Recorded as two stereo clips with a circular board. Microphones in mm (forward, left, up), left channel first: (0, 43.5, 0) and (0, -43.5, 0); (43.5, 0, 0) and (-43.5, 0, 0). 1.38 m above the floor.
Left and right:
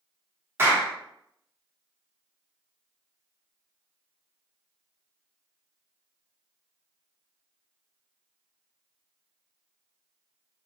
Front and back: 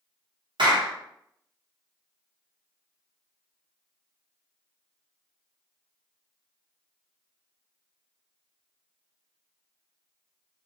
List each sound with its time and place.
0.6 s a clap: 155° right, 0.8 m